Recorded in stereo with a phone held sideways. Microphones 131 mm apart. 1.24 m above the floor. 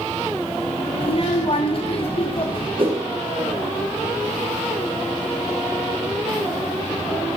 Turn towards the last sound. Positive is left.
turn(degrees=-45)  # may be behind; listen again after turning